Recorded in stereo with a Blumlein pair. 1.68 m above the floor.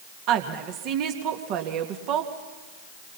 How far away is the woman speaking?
About 2.5 m.